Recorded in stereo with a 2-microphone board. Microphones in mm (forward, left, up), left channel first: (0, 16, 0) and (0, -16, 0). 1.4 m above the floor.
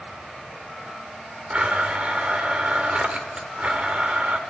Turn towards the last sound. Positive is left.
turn(degrees=-40)  # may be behind; listen again after turning